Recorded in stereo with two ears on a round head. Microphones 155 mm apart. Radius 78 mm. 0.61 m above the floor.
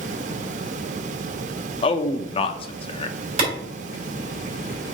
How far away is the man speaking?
About 0.6 m.